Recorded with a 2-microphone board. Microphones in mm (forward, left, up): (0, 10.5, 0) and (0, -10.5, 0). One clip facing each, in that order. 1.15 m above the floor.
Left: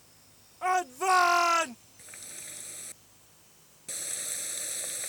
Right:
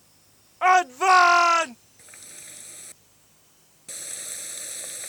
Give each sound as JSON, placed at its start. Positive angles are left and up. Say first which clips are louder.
{"t": 0.6, "sound": "a shout", "louder": "right 9 dB", "side_deg": -55}
{"t": 2.0, "sound": "a running tap", "louder": "left 2 dB", "side_deg": 0}